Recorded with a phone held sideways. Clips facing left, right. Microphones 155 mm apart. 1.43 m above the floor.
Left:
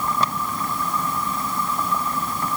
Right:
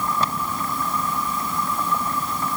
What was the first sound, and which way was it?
Only background noise.